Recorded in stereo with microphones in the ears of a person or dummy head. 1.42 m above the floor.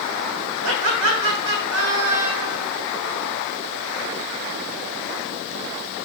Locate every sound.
0.6 s laughter: 65° right (ahead or behind), 1.4 m